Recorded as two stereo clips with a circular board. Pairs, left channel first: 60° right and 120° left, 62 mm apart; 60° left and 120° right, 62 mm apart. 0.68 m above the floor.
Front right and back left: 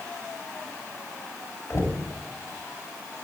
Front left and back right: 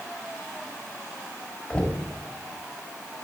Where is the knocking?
15° right, 2.5 m.